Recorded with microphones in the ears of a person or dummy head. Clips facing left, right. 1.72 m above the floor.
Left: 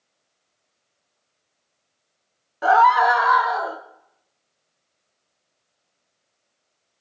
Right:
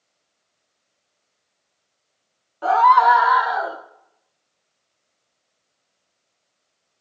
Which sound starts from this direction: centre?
A scream, at 2.6 s.